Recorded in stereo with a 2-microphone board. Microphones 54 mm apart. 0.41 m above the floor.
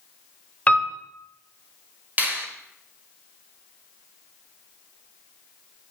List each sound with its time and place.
0.7 s a piano: 25° left (ahead or behind), 0.7 m
2.2 s a finger snap: 35° right (ahead or behind), 1.4 m